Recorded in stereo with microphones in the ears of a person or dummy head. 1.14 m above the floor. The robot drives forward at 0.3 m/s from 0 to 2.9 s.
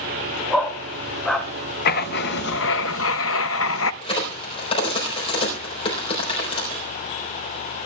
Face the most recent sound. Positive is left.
turn(degrees=25)  # may be behind; listen again after turning